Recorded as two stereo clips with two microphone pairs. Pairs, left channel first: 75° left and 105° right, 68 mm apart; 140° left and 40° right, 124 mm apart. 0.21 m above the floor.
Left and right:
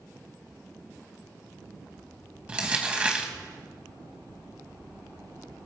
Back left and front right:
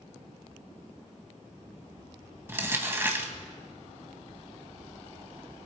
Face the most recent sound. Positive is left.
turn(degrees=-75)